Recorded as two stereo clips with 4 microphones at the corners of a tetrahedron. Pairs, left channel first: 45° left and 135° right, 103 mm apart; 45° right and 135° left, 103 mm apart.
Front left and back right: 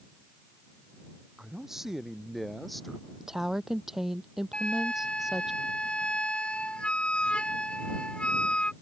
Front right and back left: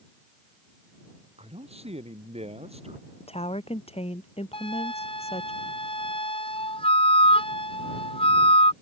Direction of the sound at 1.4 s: 140° left.